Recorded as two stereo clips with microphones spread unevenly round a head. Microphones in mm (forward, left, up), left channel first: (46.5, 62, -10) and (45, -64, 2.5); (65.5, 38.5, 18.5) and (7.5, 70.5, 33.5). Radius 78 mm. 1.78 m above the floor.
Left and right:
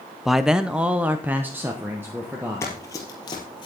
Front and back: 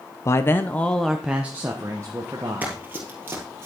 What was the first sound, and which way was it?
A man speaking, 15° right.